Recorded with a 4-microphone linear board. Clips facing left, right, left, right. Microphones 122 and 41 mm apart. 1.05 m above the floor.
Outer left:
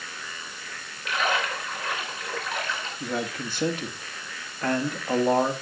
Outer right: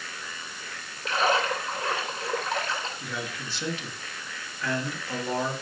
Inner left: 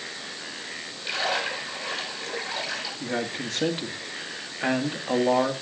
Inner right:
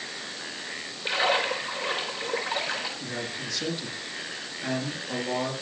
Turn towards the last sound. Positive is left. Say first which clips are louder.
# outer left 6 dB, inner left 4 dB
turn(degrees=45)  # may be behind; listen again after turning